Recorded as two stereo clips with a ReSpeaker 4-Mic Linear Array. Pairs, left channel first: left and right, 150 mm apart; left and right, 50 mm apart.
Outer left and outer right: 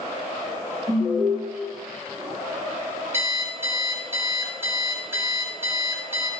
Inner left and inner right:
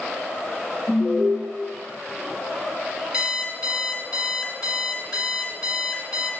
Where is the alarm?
55° right (ahead or behind), 1.9 m.